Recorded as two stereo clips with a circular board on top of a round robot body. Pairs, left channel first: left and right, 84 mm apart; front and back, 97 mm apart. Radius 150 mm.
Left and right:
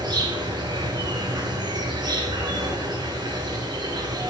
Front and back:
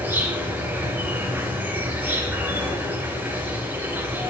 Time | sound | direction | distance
0.0 | an insect | 115° right | 4 m